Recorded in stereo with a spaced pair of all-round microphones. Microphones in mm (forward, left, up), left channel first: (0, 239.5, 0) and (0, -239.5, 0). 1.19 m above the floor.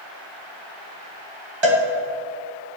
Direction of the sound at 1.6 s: 65° right (ahead or behind).